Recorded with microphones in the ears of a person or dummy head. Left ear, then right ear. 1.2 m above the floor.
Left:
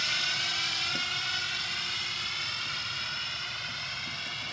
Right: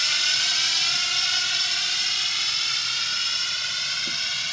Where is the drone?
25° right (ahead or behind); by 4.5 s 40° right (ahead or behind).